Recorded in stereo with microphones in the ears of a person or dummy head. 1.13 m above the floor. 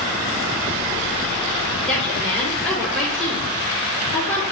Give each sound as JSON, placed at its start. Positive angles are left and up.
{"t": 1.9, "sound": "a woman speaking", "side_deg": 0, "distance_m": 2.0}